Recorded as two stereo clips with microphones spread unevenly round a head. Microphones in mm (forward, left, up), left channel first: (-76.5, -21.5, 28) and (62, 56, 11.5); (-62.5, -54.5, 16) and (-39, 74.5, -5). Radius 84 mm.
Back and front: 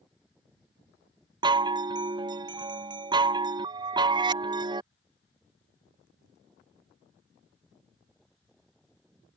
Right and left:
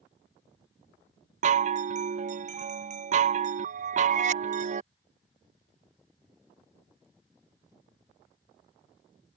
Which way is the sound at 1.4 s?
90° left.